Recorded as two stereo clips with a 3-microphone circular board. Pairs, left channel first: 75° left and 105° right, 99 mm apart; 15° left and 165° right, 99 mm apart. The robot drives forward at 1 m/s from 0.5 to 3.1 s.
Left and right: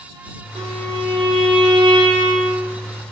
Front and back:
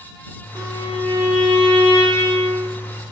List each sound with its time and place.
0.6 s a violin: 110° right, 3.5 m; by 2.7 s 140° right, 4.5 m